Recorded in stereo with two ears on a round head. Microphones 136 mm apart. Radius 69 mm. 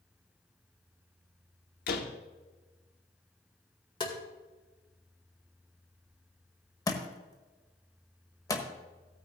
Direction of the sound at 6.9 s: 25° left (ahead or behind).